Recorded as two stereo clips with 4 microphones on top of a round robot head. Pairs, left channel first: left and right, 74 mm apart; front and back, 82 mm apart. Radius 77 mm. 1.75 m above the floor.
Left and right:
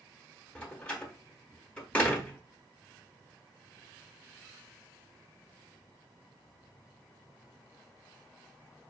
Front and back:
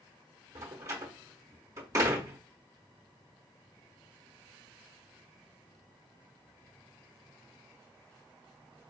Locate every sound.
0.6 s a door slam: 155° left, 0.7 m